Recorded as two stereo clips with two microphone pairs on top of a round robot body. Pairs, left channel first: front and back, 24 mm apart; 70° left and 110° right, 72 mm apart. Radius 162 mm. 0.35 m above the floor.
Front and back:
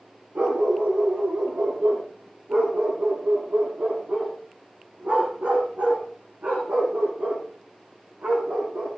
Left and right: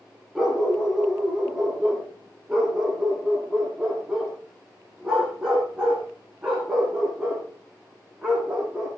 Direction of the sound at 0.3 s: 165° left.